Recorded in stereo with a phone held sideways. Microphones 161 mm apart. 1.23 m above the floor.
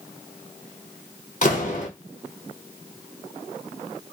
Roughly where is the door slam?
Left.